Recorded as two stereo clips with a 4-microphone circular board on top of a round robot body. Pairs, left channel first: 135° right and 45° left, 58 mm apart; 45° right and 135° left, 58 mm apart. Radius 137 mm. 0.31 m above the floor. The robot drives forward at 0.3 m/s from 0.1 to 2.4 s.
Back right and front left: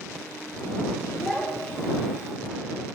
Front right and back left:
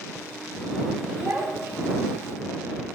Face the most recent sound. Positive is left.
turn(degrees=160)